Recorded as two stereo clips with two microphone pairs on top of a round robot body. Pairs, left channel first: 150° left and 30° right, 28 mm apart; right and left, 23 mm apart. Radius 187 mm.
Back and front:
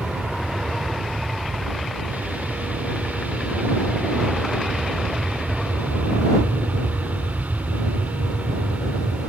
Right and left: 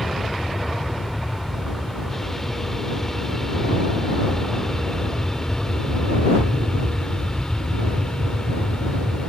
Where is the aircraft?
10° right; by 9.3 s 45° right.